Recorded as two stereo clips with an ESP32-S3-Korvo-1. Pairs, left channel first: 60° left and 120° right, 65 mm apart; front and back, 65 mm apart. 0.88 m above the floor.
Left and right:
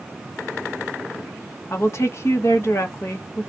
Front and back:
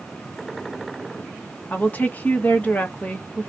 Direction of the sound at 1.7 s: 55° left.